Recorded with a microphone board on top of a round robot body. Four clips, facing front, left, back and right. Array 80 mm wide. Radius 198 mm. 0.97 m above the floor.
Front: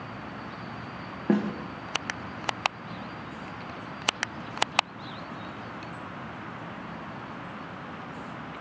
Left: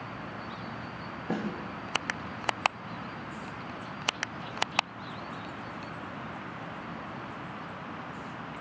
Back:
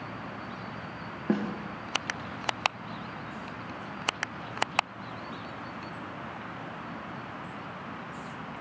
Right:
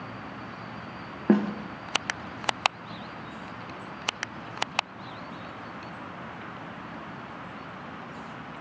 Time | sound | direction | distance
1.3 | a snare drum | 85° right | 0.7 m